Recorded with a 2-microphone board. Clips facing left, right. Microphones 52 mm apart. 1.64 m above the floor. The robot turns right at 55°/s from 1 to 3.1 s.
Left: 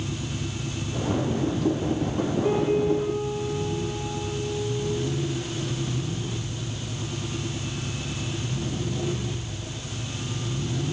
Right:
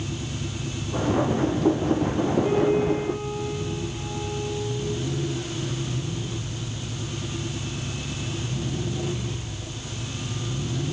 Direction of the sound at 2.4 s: 160° left.